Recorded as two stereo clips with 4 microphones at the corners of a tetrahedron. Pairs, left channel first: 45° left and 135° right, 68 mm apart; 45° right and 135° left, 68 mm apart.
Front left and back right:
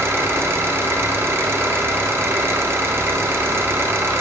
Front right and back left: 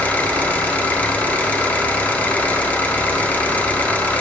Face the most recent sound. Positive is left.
turn(degrees=-105)